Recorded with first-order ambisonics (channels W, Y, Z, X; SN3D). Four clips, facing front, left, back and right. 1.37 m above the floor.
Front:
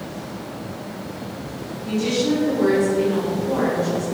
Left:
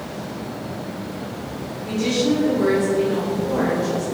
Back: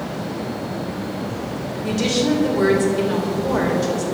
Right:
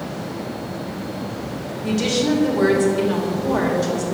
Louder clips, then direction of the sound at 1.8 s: Right 1 dB, back 1 dB; 140° right.